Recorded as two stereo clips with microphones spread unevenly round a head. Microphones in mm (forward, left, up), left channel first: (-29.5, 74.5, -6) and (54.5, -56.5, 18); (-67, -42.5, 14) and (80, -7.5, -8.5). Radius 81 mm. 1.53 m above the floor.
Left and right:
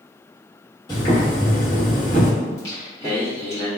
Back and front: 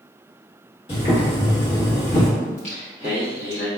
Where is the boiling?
170° right, 1.5 m.